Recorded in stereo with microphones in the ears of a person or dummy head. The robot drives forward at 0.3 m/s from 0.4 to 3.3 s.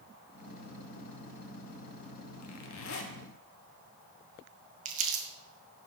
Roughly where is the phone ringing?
No phone ringing in this recording.